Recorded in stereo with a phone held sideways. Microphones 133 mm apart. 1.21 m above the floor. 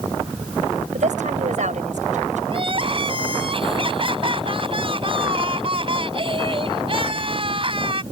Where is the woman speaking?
65° right (ahead or behind).